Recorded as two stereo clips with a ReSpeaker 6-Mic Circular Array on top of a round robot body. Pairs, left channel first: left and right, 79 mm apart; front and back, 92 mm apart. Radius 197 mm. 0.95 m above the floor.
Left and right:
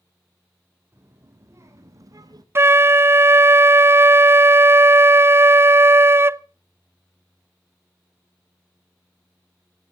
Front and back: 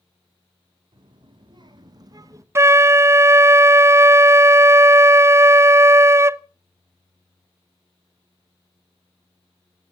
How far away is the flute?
About 0.5 m.